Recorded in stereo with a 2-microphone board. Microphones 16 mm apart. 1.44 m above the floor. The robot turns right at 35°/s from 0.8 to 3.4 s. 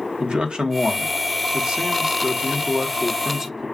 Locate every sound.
0.2 s a man speaking: 105° right, 1.1 m; by 3.7 s 15° right, 1.1 m